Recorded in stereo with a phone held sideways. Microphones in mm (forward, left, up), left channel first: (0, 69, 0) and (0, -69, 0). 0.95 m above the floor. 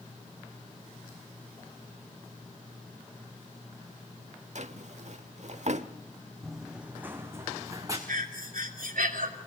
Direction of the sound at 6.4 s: Centre (ahead or behind).